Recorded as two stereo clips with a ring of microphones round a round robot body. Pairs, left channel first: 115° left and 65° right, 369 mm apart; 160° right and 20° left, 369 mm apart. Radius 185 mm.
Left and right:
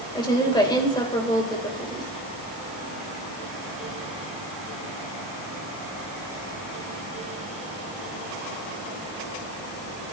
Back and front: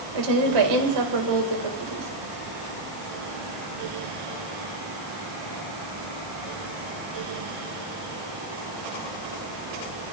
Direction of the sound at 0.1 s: 35° left.